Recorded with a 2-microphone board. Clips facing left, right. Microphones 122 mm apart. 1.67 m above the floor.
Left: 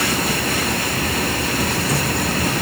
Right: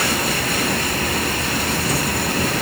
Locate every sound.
Only background noise.